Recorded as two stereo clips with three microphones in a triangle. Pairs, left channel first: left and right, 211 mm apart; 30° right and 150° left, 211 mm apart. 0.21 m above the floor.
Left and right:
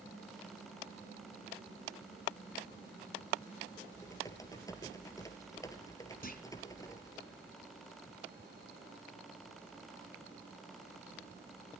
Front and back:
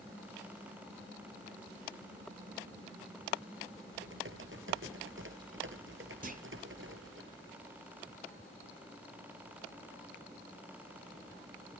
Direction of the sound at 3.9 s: 165° left.